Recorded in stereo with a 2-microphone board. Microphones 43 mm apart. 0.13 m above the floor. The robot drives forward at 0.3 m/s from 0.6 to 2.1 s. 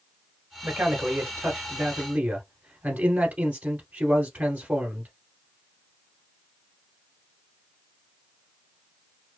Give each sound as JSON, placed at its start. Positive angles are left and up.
{"t": 0.6, "sound": "a man speaking", "side_deg": -45, "distance_m": 1.5}